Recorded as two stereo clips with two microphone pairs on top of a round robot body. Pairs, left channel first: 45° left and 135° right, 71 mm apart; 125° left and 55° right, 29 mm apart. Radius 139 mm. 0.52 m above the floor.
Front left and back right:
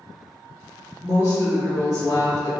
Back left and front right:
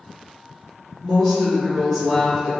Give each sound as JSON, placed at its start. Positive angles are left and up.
{"t": 1.0, "sound": "a woman speaking", "azimuth_deg": 40, "distance_m": 1.3}